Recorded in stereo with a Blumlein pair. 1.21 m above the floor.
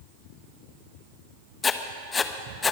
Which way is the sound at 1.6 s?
15° left.